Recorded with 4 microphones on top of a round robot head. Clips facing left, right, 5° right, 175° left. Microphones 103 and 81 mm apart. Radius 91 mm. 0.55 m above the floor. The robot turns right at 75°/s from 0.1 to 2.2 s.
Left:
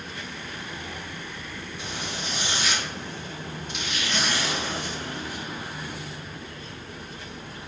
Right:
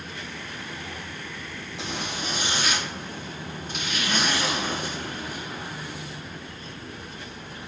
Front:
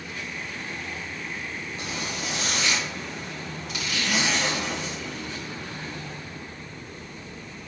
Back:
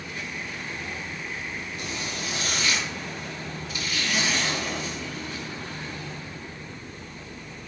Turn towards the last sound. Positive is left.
turn(degrees=-40)